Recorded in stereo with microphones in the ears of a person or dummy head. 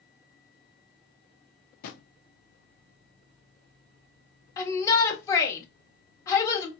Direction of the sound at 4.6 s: 20° left (ahead or behind).